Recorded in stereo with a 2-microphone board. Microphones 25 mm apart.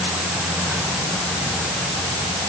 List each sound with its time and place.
Only background noise.